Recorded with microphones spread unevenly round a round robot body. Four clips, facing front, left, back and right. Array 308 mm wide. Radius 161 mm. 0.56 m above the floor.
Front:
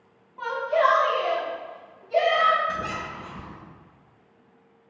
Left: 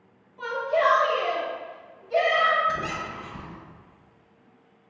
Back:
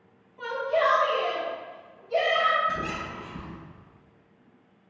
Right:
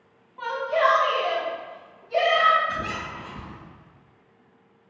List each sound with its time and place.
0.4 s a shout: 30° right, 1.1 m; by 2.6 s 125° left, 1.3 m
2.7 s a squeak: 105° left, 1.0 m